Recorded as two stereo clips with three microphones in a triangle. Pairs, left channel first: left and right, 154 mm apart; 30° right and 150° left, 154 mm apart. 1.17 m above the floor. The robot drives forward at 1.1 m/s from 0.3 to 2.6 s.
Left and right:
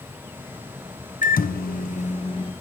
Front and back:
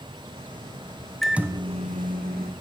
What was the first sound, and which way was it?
A microwave, 55° left.